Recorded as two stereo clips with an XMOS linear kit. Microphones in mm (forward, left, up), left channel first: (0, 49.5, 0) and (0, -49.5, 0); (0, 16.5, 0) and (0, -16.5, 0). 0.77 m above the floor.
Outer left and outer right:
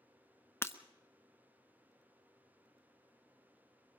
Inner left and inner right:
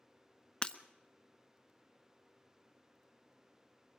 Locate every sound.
0.6 s breaking glass: 25° left (ahead or behind), 0.8 m